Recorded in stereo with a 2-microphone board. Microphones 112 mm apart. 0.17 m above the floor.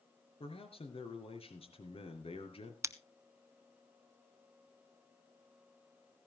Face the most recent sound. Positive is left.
turn(degrees=-25)  # may be behind; listen again after turning